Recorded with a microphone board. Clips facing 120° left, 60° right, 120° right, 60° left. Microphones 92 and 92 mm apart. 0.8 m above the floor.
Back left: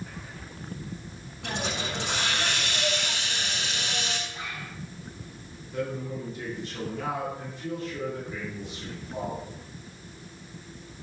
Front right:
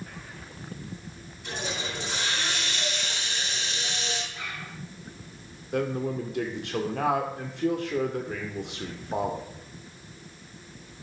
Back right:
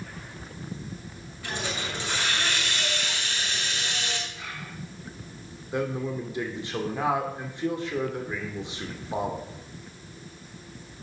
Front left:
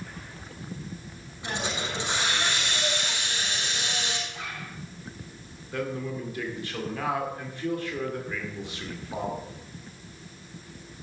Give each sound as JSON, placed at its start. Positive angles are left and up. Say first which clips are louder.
{"t": 1.4, "sound": "a hiss", "louder": "back left 2 dB, front left 1 dB", "azimuth_deg": 130, "distance_m": 6.5}
{"t": 4.3, "sound": "a zipper", "louder": "back left 1 dB, front left 1 dB", "azimuth_deg": 50, "distance_m": 3.5}
{"t": 5.7, "sound": "a man speaking", "louder": "front right 4 dB, back right 3 dB", "azimuth_deg": -50, "distance_m": 2.5}